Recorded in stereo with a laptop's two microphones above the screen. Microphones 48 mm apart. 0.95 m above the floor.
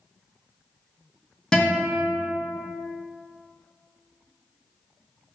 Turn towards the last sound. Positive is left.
turn(degrees=15)  # may be behind; listen again after turning